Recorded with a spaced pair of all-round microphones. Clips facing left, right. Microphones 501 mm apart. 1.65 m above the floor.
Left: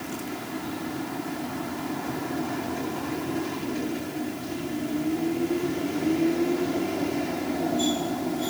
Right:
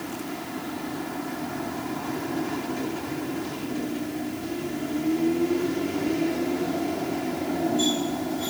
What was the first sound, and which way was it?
Only background noise.